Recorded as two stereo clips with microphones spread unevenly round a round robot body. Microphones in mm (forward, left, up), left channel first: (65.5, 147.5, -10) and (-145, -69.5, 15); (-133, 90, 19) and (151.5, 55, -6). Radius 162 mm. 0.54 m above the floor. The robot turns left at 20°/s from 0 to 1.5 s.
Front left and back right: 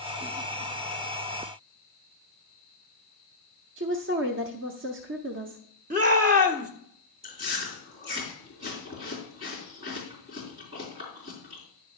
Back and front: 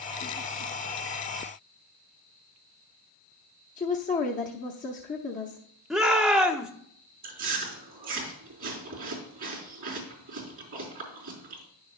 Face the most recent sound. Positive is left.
turn(degrees=-60)